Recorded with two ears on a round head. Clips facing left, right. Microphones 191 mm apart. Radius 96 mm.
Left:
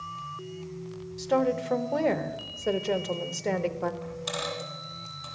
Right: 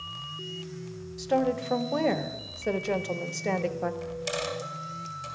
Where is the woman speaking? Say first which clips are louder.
Left 1 dB; centre (ahead or behind), 0.5 m.